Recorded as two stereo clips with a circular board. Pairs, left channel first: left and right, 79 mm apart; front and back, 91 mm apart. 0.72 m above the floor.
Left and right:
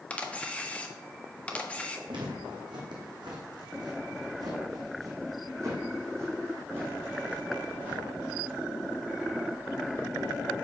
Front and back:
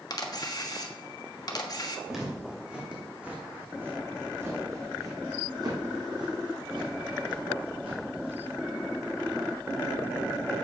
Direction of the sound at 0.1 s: 20° left.